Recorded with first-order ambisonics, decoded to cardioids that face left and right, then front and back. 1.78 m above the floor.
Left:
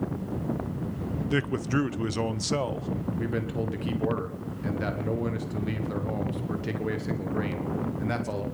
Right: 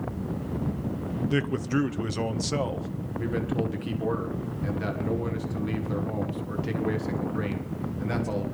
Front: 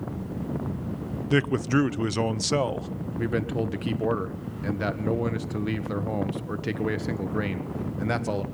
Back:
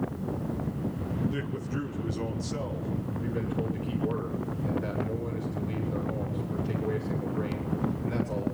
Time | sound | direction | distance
1.3 | a man speaking | 10° left | 0.6 m
3.1 | a man speaking | 10° left | 1.4 m